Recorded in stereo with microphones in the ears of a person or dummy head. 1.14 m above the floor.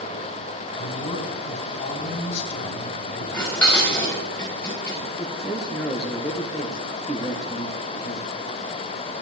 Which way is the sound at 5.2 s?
Centre (ahead or behind).